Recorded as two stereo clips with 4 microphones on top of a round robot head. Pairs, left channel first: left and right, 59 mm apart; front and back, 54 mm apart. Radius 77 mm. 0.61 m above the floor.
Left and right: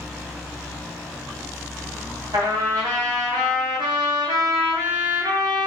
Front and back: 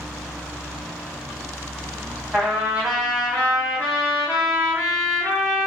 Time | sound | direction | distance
2.3 | a trumpet | 105° right | 0.5 m